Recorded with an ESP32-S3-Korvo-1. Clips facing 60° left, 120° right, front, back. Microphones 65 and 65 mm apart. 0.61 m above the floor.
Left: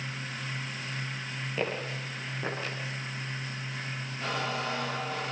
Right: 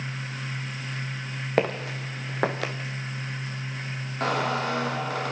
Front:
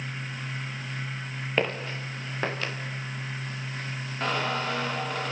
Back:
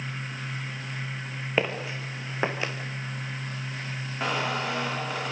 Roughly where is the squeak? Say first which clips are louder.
Right 7 dB, even; right.